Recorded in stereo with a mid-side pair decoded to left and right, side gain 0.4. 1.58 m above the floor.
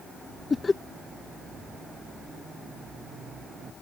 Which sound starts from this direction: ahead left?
Laughter, at 0.5 s.